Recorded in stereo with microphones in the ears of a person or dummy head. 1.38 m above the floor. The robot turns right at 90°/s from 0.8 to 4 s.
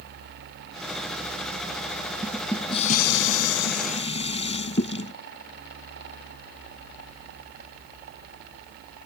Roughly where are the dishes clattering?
Ahead.